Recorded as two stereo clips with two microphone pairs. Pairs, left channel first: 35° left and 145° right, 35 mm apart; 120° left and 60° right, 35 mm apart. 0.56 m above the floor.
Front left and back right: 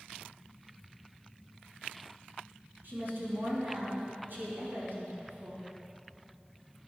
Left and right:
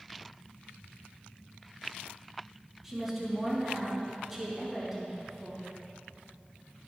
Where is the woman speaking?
150° right, 4 m.